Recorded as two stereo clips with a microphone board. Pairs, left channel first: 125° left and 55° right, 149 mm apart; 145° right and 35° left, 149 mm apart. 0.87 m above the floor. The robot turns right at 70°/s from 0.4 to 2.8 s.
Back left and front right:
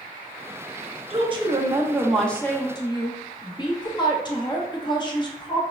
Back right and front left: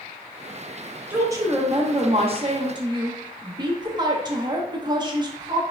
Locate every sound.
1.1 s a woman speaking: 40° right, 0.9 m; by 5.6 s 80° left, 0.9 m